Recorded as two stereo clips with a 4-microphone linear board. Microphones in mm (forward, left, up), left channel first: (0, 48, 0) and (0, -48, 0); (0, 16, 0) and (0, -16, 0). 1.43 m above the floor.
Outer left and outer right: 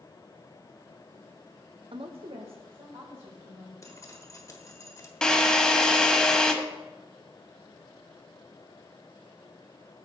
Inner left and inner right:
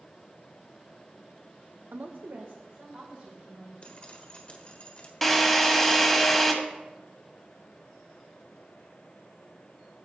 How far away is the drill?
About 1.2 m.